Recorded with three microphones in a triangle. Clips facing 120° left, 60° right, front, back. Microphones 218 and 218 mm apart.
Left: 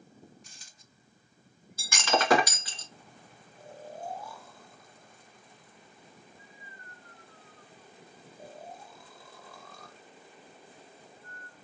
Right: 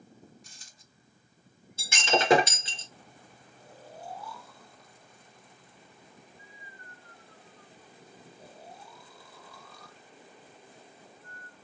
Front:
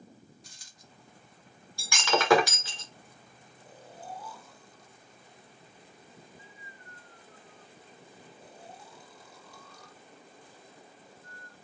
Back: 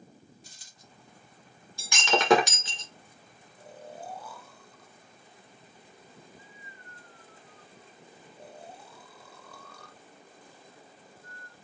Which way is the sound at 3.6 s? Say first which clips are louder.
Left 5 dB, back 5 dB; 160° left.